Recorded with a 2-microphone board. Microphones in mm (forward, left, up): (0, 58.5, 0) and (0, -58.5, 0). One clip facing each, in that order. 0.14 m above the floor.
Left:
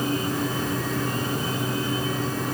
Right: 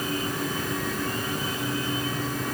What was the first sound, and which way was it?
Only background noise.